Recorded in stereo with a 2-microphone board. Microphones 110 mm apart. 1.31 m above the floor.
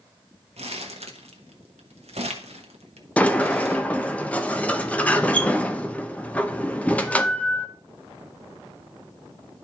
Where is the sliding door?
15° left (ahead or behind), 0.6 m.